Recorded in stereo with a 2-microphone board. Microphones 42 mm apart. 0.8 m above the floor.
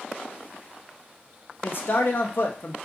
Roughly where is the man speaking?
Left.